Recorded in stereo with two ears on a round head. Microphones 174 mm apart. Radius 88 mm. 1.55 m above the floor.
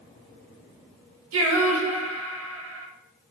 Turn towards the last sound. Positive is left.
turn(degrees=-75)  # may be behind; listen again after turning